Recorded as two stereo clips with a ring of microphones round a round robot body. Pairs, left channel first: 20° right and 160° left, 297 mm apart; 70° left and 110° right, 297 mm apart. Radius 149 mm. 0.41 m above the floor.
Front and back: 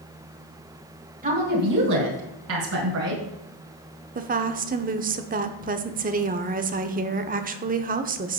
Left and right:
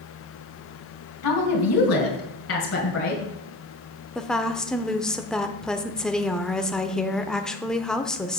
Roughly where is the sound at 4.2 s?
Behind left.